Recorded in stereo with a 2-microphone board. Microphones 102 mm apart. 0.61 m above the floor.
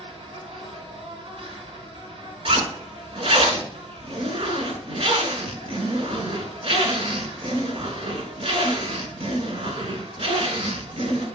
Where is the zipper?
75° right (ahead or behind), 1.4 m.